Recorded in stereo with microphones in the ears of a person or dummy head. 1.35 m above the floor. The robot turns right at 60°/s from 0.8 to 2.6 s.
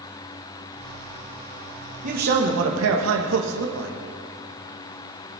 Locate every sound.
2.0 s a man speaking: 140° right, 1.7 m; by 4.0 s 105° right, 1.7 m